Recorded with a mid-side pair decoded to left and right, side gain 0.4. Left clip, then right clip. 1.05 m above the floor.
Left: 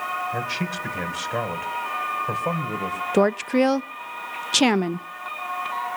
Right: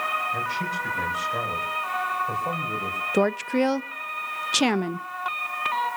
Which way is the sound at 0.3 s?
55° left.